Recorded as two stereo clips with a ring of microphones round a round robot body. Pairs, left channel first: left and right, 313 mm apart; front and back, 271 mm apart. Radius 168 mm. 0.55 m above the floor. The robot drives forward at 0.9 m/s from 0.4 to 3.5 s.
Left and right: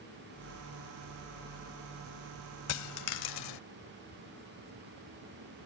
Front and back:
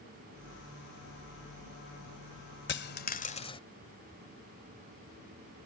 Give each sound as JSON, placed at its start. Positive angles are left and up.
{"t": 2.7, "sound": "a dropped coin", "azimuth_deg": 50}